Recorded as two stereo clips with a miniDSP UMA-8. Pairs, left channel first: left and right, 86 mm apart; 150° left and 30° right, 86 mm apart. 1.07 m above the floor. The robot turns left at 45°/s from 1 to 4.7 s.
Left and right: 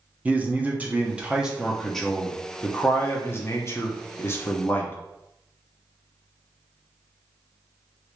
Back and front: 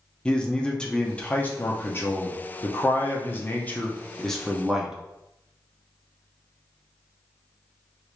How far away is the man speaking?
About 0.7 m.